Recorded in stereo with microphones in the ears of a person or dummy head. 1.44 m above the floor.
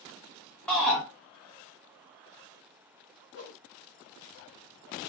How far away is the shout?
About 1.2 m.